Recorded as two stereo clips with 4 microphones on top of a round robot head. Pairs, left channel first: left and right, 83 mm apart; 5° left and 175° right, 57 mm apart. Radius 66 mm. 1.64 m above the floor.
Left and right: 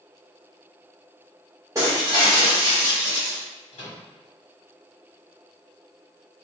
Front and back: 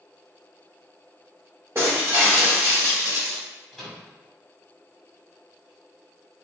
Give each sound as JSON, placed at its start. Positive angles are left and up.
{"t": 1.8, "sound": "breaking glass", "azimuth_deg": -130, "distance_m": 0.8}
{"t": 3.7, "sound": "a microwave", "azimuth_deg": 90, "distance_m": 1.4}